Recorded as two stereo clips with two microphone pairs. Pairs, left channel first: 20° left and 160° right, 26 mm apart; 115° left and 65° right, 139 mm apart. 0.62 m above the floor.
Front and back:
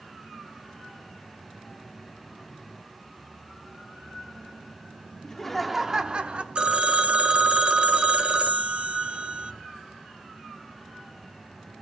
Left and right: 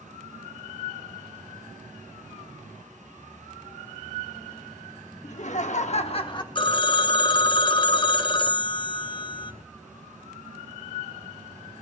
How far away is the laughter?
About 1.0 m.